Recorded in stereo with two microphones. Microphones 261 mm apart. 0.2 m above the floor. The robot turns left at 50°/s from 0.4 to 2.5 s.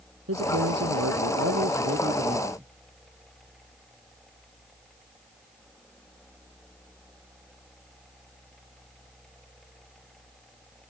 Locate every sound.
0.3 s a man speaking: 65° right; by 2.7 s 170° right